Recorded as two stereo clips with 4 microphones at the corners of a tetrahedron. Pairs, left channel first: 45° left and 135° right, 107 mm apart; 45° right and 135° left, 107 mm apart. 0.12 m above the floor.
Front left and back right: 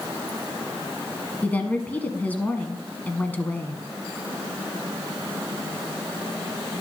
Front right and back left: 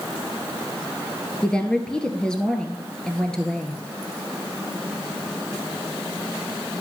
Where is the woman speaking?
15° left, 1.0 m.